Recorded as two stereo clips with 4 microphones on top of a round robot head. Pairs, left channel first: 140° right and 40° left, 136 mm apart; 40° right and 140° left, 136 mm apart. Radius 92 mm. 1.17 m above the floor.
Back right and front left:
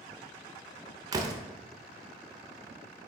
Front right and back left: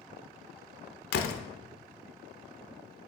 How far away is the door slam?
About 0.6 m.